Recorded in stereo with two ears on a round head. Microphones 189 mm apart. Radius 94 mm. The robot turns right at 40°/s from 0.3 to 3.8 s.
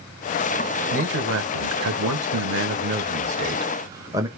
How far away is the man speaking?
About 1.3 m.